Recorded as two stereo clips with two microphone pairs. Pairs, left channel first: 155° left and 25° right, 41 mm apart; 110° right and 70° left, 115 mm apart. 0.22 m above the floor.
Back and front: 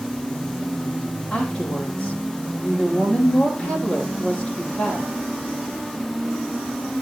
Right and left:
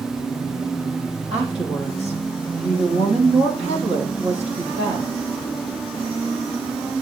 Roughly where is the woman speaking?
Left.